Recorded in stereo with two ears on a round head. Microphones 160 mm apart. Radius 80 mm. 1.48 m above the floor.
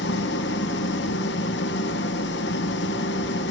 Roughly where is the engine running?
Left.